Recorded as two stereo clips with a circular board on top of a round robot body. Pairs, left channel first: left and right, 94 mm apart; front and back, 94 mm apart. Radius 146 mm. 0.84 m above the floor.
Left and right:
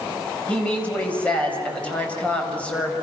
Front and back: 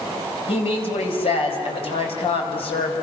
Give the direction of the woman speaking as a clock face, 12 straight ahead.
12 o'clock.